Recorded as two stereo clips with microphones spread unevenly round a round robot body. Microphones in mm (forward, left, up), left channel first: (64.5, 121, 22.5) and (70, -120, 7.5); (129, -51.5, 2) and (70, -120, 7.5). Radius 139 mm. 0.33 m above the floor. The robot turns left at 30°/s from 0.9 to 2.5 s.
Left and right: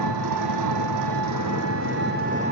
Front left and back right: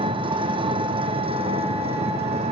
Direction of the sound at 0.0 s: 110° right.